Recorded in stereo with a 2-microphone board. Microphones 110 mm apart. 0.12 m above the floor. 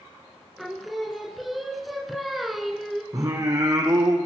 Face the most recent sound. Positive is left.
turn(degrees=-30)  # may be behind; listen again after turning